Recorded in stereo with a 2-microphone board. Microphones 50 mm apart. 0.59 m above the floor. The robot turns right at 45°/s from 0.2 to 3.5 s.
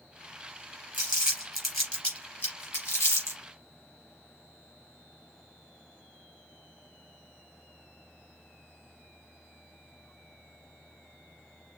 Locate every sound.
0.9 s crumpling: 30° right (ahead or behind), 3 m; by 3.4 s 80° left, 3 m